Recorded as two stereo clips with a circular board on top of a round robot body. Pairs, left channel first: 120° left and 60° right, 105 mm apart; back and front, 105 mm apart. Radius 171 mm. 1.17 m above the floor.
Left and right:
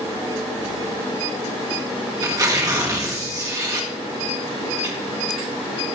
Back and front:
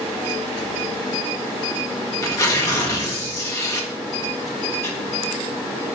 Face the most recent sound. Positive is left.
turn(degrees=-120)